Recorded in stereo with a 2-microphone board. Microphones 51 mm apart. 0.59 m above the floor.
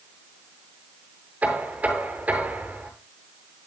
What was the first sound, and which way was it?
Knocking, 25° right (ahead or behind).